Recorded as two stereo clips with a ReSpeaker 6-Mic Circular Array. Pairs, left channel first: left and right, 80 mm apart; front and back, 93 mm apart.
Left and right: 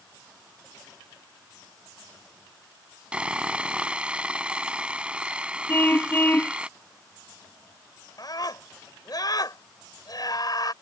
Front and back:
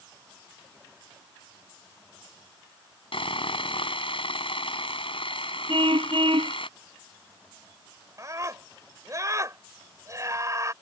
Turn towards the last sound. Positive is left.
turn(degrees=125)